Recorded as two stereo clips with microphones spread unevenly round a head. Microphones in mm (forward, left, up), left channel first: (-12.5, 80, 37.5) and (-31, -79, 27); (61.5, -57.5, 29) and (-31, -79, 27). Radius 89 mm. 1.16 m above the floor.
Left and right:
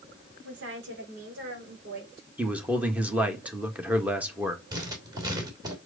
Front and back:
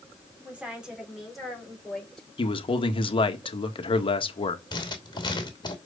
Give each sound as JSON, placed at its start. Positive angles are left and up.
{"t": 0.4, "sound": "a woman speaking", "azimuth_deg": -90, "distance_m": 3.5}
{"t": 2.4, "sound": "a man speaking", "azimuth_deg": -15, "distance_m": 1.6}
{"t": 4.7, "sound": "writing", "azimuth_deg": -25, "distance_m": 2.5}